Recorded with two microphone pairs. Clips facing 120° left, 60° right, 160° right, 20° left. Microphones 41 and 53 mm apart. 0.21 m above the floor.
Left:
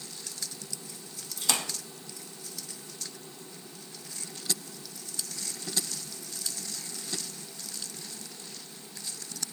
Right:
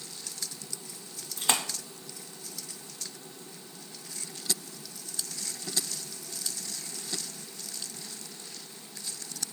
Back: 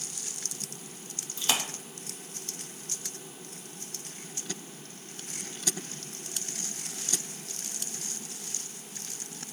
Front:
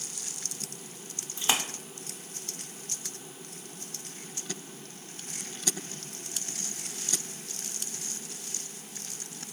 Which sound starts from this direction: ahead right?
A splash, at 1.4 s.